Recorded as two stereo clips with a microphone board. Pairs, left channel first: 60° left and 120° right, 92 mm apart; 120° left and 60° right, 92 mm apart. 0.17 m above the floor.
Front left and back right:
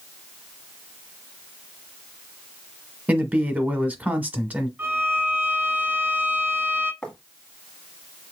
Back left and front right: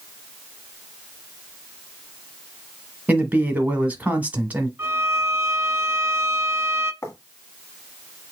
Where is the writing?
135° left, 1.3 m.